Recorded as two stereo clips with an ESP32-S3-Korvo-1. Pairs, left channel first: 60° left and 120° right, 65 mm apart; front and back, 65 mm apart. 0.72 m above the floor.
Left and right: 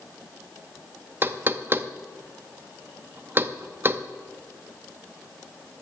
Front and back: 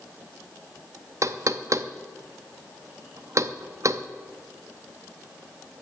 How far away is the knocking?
About 0.6 m.